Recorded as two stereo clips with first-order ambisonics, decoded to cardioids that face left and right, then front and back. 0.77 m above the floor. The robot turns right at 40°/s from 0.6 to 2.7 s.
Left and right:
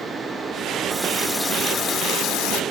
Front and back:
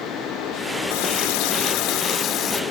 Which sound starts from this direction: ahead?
A running tap, at 0.9 s.